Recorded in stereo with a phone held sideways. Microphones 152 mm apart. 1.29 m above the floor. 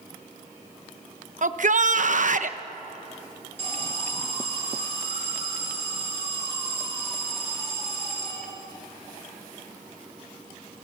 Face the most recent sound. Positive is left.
turn(degrees=-45)  # may be behind; listen again after turning